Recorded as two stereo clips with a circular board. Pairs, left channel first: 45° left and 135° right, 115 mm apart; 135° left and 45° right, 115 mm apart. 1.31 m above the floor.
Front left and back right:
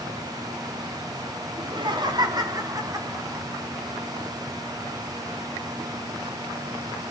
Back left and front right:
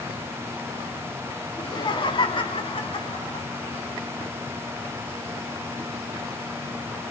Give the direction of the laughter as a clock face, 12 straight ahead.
6 o'clock.